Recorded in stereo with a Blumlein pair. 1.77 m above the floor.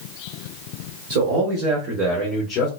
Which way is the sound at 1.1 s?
50° right.